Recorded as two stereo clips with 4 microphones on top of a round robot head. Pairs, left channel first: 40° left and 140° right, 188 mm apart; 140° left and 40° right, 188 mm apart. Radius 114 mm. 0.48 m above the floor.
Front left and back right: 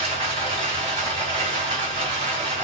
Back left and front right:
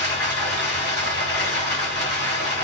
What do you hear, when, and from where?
0.0 s running water: 160° left, 2 m